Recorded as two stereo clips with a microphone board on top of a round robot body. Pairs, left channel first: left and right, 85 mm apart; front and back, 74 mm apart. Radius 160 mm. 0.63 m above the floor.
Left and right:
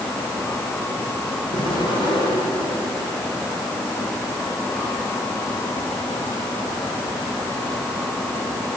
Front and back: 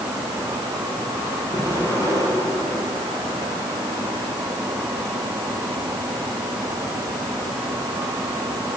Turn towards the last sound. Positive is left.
turn(degrees=125)